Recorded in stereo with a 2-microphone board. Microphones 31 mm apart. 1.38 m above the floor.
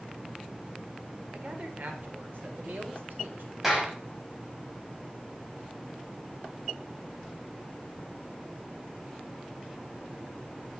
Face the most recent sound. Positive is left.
turn(degrees=-10)  # may be behind; listen again after turning